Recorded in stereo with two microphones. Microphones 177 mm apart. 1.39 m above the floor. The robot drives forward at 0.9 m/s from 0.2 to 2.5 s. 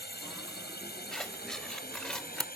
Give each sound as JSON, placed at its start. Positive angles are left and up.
{"t": 0.0, "sound": "a drone", "side_deg": 70}
{"t": 1.1, "sound": "scissors", "side_deg": 0}